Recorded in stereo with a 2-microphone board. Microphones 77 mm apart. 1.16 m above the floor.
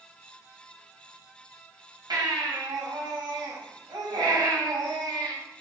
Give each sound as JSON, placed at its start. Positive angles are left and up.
{"t": 2.1, "sound": "a baby crying", "side_deg": -75, "distance_m": 2.5}